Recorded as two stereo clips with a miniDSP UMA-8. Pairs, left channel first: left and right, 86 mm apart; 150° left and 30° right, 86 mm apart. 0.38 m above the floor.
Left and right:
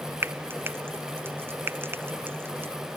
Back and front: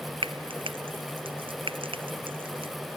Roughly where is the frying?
Ahead right.